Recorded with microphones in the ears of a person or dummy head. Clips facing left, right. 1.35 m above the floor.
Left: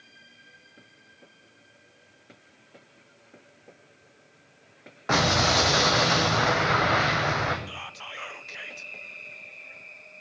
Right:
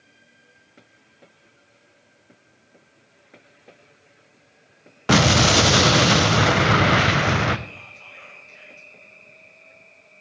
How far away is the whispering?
About 0.6 m.